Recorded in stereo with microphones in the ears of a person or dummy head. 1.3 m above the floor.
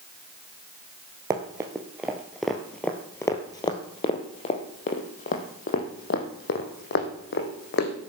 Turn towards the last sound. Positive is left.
turn(degrees=60)  # may be behind; listen again after turning